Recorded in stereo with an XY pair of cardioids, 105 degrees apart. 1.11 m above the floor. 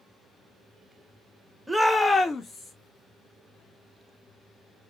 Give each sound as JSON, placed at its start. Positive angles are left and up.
{"t": 1.7, "sound": "a shout", "azimuth_deg": -10, "distance_m": 0.6}